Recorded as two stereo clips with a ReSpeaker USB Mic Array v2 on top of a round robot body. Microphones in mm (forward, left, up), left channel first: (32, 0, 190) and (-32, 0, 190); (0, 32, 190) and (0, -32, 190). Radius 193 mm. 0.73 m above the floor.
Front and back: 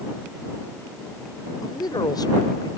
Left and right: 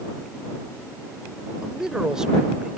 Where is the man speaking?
10° right.